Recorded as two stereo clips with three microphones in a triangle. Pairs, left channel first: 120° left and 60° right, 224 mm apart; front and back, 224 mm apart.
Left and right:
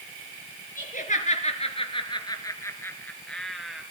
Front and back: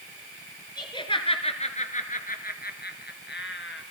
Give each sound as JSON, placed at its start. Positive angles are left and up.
{"t": 0.8, "sound": "laughter", "azimuth_deg": 70, "distance_m": 4.0}